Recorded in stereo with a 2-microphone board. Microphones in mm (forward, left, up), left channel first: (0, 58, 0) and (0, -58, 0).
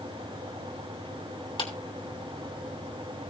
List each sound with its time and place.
1.6 s a clap: 45° left (ahead or behind), 3 m